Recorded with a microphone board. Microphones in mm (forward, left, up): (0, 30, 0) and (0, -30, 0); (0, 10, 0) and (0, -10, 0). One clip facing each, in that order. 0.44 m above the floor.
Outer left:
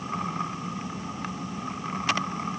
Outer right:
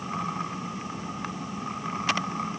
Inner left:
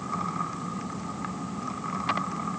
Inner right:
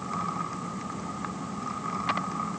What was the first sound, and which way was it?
Only background noise.